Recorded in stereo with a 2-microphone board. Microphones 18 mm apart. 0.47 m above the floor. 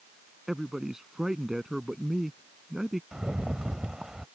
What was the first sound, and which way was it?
A man speaking, 25° right (ahead or behind).